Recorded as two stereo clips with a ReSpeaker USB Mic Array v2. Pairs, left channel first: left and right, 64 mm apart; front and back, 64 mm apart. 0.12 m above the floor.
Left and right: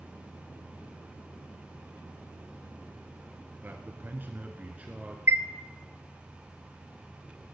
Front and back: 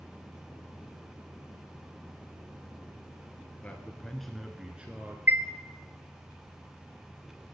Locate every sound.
3.6 s a man speaking: 55° right, 1.7 m; by 5.2 s 145° right, 1.6 m
5.3 s a chime: 125° right, 1.0 m